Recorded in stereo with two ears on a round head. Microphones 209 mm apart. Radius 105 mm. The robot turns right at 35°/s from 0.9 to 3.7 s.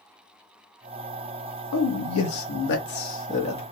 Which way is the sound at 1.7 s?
90° left.